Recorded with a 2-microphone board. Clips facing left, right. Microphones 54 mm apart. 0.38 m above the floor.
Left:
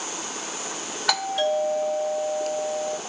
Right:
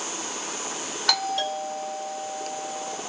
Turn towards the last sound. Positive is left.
turn(degrees=5)  # may be behind; listen again after turning